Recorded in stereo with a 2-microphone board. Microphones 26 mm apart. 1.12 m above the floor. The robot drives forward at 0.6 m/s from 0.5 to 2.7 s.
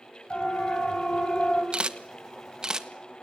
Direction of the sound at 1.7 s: 45° right (ahead or behind).